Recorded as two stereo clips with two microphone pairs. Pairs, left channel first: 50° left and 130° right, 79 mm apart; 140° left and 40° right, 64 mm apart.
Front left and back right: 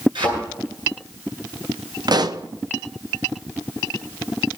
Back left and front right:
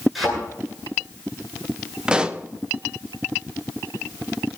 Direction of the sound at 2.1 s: 110° right.